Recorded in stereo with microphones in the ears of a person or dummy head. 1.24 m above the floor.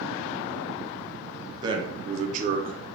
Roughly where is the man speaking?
Right.